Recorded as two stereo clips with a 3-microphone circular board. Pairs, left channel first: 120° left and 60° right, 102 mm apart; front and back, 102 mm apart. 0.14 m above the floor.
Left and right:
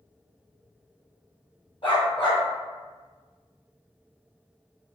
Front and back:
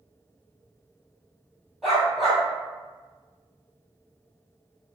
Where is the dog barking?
90° left, 1.2 m.